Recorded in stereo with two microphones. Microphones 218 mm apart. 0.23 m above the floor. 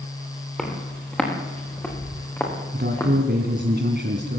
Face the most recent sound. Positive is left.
turn(degrees=-50)  # may be behind; listen again after turning